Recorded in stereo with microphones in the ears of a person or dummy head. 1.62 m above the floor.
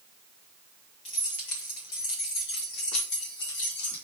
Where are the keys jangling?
35° left (ahead or behind), 2 m; by 4.0 s 75° left (ahead or behind), 2.5 m.